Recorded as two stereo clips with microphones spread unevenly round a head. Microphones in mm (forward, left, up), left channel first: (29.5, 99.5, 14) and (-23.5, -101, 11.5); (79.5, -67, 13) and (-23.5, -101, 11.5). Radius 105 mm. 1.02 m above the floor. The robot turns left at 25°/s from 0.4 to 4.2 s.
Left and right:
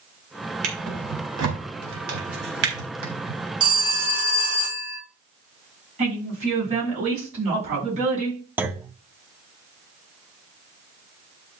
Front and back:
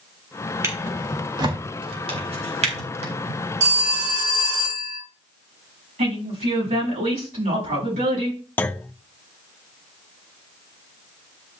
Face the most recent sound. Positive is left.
turn(degrees=-30)